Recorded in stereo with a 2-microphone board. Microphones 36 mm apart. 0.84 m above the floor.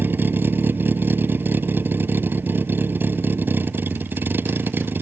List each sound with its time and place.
0.0 s a vehicle: 75° right (ahead or behind)